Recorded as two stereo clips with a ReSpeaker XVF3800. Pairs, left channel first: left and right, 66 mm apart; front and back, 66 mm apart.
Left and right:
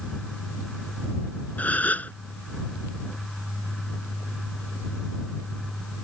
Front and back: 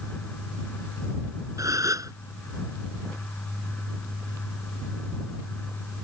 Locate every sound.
1.6 s a gasp: 155° left